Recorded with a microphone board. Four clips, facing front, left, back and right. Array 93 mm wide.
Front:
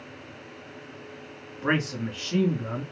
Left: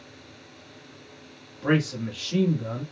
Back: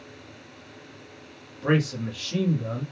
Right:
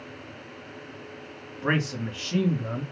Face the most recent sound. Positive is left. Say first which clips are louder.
# left 3 dB, back 2 dB
turn(degrees=-45)